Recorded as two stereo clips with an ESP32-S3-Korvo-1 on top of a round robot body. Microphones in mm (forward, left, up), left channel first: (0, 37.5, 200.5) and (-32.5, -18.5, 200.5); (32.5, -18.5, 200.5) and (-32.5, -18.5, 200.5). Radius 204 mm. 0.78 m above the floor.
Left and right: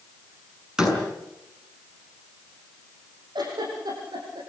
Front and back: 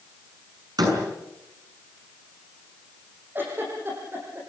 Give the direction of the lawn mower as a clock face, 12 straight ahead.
No lawn mower in this recording.